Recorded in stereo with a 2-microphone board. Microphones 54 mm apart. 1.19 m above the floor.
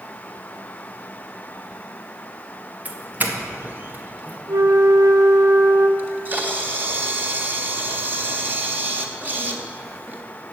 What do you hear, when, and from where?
2.9 s a doorbell: 30° right (ahead or behind), 1.8 m
4.5 s a flute: 75° right (ahead or behind), 1.1 m
6.0 s a camera shutter: 30° right (ahead or behind), 1.6 m